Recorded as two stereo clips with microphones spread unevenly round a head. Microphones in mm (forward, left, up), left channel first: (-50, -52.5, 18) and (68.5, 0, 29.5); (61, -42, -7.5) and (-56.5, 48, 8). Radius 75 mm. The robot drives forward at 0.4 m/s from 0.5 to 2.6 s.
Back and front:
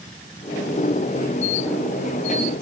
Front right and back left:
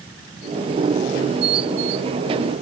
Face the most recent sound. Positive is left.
No sound to turn to.